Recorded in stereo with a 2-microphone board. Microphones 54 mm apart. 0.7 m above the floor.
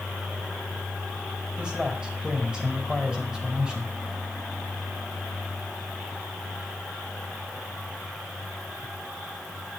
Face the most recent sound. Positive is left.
turn(degrees=-15)  # may be behind; listen again after turning